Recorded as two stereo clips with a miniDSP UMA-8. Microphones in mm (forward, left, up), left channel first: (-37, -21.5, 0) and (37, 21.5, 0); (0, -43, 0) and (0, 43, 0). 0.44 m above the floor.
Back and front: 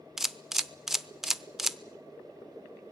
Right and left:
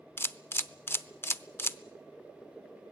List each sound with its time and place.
0.2 s a camera shutter: 55° right, 0.7 m